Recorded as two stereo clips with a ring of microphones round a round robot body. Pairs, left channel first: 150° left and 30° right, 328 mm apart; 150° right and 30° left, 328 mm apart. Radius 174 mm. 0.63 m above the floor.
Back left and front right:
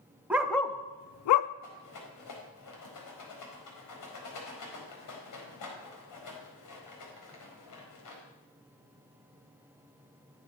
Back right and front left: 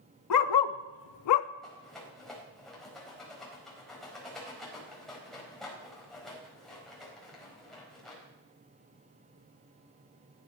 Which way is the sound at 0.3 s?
115° right.